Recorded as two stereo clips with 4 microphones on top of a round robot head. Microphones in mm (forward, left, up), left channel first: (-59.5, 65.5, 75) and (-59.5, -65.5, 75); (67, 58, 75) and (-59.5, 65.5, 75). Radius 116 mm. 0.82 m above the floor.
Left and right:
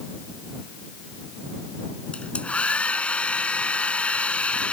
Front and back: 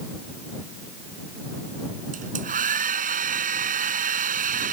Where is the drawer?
No drawer in this recording.